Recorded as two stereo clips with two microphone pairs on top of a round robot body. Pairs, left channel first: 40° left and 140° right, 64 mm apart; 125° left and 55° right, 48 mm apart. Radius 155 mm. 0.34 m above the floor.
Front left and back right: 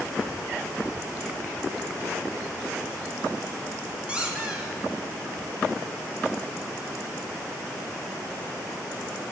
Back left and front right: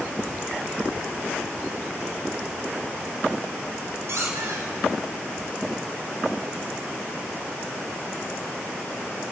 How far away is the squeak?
About 1.9 m.